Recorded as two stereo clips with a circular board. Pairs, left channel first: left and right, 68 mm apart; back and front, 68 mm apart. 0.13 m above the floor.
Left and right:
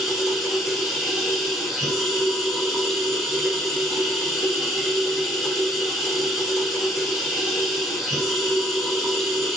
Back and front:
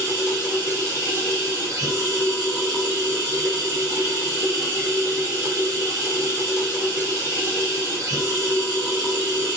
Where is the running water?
10° left, 1.4 m.